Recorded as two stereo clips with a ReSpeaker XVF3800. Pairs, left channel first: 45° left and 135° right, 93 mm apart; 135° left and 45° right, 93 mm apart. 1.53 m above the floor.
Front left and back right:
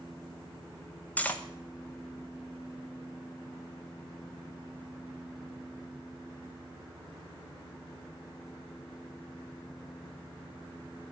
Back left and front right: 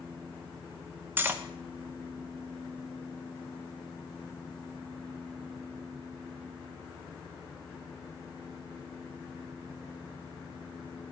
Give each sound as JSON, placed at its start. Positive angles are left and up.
{"t": 1.2, "sound": "cutlery clinking", "azimuth_deg": -5, "distance_m": 0.7}